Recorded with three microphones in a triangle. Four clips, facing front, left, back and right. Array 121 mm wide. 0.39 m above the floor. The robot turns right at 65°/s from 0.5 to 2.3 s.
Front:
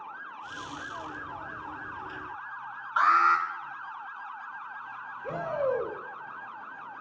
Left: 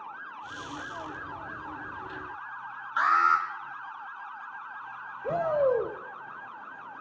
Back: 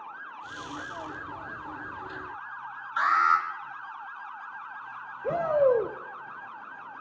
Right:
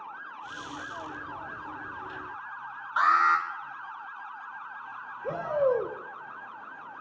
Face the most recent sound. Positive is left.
turn(degrees=-160)